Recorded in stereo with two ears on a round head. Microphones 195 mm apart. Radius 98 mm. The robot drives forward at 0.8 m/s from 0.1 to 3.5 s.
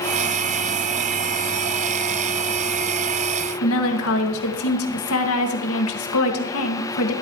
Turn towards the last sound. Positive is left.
turn(degrees=70)  # may be behind; listen again after turning